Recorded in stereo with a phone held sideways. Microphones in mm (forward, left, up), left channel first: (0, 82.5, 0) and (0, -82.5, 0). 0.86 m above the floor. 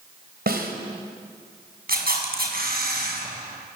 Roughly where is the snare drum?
Right.